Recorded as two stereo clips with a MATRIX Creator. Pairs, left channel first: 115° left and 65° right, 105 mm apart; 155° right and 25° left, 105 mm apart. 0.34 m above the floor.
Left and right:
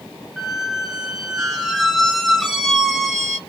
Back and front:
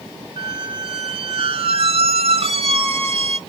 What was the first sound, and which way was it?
A squeak, 20° left.